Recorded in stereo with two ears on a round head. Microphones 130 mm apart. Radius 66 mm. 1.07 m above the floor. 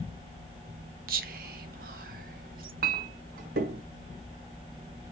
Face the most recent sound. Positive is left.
turn(degrees=-70)  # may be behind; listen again after turning